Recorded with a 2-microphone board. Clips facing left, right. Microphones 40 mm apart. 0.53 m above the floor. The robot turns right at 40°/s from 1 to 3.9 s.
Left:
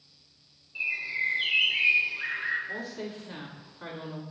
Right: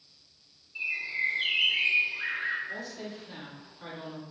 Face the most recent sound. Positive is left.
turn(degrees=10)  # may be behind; listen again after turning